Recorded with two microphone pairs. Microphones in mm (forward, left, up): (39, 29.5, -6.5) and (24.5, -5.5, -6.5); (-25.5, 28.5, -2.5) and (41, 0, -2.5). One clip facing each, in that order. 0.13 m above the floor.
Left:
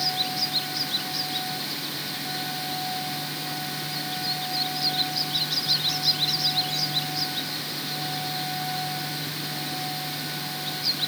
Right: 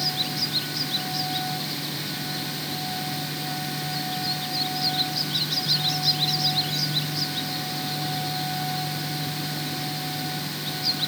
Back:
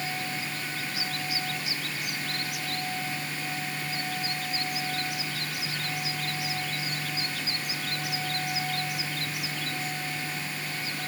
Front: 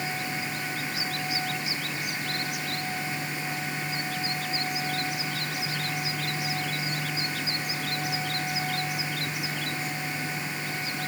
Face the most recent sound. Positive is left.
No sound to turn to.